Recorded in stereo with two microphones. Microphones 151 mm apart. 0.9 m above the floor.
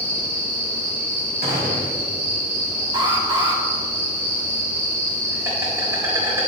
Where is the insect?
15° right (ahead or behind), 4 m.